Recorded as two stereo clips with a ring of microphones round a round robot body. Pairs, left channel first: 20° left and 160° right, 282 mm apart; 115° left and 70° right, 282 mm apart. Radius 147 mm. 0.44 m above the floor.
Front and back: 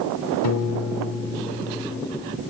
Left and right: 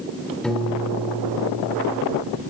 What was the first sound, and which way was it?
A piano, 25° left.